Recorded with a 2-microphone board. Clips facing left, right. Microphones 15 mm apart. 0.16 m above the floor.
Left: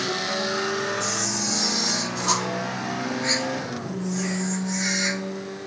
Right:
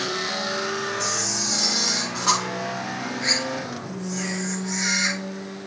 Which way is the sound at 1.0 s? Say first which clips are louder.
Right 1 dB; 55° right (ahead or behind).